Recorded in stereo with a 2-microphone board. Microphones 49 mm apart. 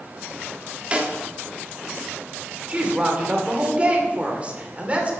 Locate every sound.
0.9 s a snare drum: 25° right (ahead or behind), 1.2 m
2.7 s a woman speaking: 25° right (ahead or behind), 2.5 m